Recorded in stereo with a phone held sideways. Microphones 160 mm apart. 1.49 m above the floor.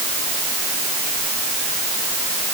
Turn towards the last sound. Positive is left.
No sound to turn to.